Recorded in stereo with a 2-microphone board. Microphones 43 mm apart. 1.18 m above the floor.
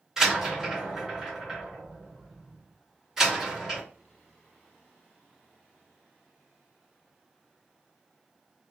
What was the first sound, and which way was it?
A door slam, 15° right (ahead or behind).